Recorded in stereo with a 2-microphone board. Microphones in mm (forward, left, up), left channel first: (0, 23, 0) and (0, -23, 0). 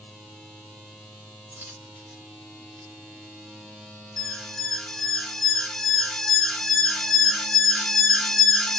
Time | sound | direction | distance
1.5 | a dropped coin | 40° right (ahead or behind) | 1.7 m
4.2 | an alarm | 5° left (ahead or behind) | 0.6 m